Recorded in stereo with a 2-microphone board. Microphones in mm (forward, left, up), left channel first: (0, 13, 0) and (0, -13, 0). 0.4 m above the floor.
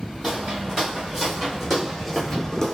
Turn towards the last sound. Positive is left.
turn(degrees=25)  # may be behind; listen again after turning